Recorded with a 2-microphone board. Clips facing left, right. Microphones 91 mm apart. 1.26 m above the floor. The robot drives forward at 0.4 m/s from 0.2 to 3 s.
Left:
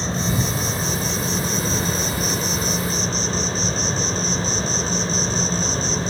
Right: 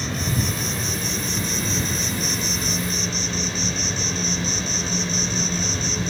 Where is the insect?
30° left (ahead or behind), 1.3 m; by 6.1 s 35° left (ahead or behind), 1.2 m.